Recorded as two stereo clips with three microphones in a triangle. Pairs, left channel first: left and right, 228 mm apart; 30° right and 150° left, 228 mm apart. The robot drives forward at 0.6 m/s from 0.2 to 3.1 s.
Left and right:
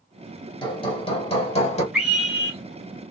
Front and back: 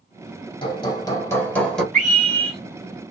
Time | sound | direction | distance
0.6 | hammering | 30° left | 1.7 m
1.9 | a scream | 175° right | 1.5 m